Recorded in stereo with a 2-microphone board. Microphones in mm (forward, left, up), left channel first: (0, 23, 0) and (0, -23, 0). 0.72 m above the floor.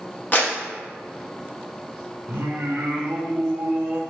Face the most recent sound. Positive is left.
turn(degrees=-60)  # may be behind; listen again after turning